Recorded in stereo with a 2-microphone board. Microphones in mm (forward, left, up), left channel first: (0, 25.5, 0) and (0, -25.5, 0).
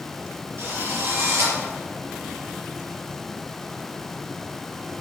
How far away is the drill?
About 5.5 m.